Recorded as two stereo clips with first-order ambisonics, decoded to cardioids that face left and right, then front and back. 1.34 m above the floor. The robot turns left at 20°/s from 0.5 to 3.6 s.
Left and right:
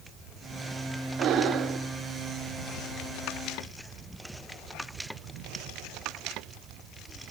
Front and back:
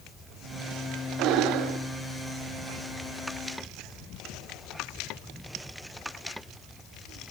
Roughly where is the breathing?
Behind right.